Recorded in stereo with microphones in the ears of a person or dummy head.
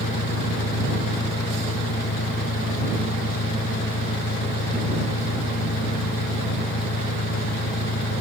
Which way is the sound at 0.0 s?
55° left (ahead or behind).